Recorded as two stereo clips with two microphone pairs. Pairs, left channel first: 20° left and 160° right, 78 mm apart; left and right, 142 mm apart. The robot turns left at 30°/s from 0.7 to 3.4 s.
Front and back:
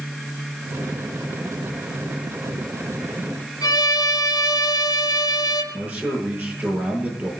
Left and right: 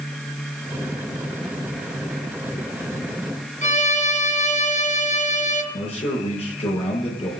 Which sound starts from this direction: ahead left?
A violin, at 3.6 s.